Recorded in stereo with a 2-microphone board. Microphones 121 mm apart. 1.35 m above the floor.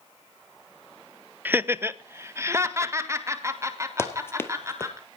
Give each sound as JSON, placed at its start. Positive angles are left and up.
{"t": 1.4, "sound": "laughter", "side_deg": -15, "distance_m": 0.6}
{"t": 4.0, "sound": "running footsteps", "side_deg": 20, "distance_m": 1.7}